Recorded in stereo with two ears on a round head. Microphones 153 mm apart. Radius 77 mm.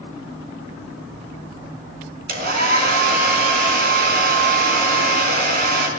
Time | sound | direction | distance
2.3 | a hair dryer | 55° right (ahead or behind) | 3.5 m